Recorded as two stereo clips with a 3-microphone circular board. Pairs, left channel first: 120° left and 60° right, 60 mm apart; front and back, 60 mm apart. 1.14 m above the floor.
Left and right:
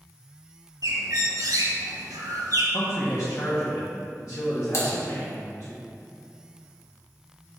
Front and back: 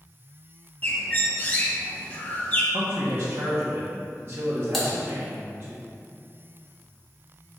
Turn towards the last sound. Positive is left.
turn(degrees=85)